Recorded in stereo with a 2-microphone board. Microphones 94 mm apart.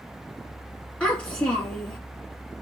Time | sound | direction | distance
1.0 | a child speaking | 15° left (ahead or behind) | 1.2 m